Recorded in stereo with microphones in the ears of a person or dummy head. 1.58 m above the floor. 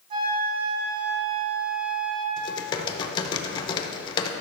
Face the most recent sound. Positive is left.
turn(degrees=25)  # may be behind; listen again after turning